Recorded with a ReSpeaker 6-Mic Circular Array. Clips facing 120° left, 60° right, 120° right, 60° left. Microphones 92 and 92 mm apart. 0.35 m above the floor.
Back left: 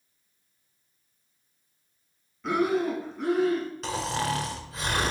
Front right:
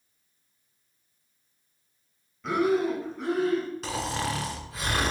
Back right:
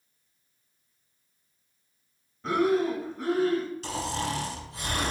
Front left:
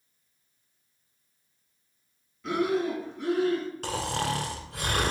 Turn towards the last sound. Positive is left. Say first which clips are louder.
# back left 1 dB, front left 1 dB
turn(degrees=30)